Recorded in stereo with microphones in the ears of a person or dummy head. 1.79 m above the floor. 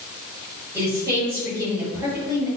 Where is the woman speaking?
20° right (ahead or behind), 1.7 m.